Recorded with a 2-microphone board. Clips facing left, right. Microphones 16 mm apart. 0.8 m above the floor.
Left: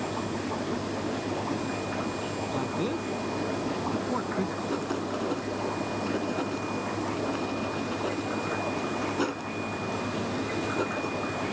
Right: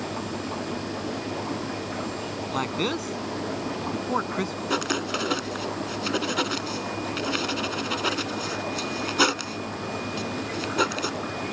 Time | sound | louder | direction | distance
2.5 | a man speaking | right 5 dB | 65° right (ahead or behind) | ?
4.7 | writing | right 4 dB | 75° right (ahead or behind) | ?